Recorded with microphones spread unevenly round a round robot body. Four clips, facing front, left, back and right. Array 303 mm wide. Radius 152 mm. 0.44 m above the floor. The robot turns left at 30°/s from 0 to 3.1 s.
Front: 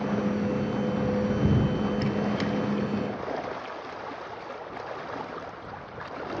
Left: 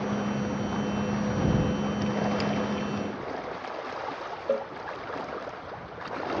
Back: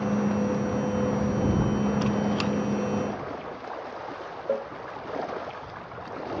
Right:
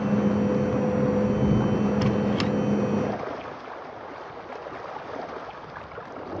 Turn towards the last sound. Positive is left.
turn(degrees=135)